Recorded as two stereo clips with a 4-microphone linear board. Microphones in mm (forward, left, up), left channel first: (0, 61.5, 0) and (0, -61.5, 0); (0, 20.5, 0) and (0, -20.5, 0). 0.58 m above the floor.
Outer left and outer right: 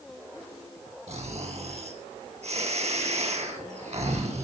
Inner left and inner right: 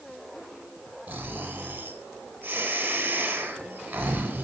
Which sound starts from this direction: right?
Snoring, at 1.1 s.